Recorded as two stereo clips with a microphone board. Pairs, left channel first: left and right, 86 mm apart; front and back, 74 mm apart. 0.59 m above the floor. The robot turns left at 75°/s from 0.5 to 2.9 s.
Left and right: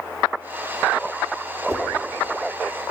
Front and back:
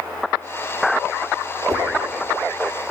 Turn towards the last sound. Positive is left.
turn(degrees=130)